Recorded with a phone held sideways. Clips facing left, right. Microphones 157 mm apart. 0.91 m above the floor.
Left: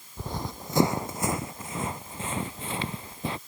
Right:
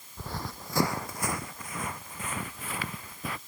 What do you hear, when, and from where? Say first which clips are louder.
0.2 s running footsteps: left 3 dB; 20° left (ahead or behind); by 3.4 s 25° left (ahead or behind)